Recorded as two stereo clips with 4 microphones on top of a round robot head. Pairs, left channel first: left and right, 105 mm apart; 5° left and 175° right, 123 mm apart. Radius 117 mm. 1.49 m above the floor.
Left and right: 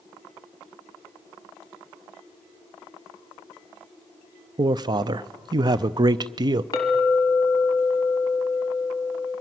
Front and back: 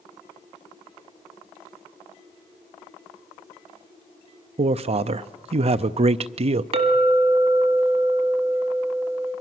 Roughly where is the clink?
Behind.